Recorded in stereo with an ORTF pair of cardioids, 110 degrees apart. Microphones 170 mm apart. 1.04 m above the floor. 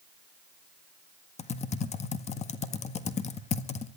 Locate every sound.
1.4 s typing on a keyboard: 40° left, 1.6 m